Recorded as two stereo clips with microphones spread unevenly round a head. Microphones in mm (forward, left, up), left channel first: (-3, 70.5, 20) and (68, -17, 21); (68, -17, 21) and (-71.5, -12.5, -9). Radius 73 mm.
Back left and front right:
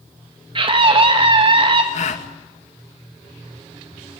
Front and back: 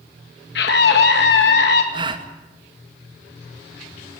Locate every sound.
0.6 s a scream: 10° right, 1.9 m
1.9 s a gasp: 125° left, 2.0 m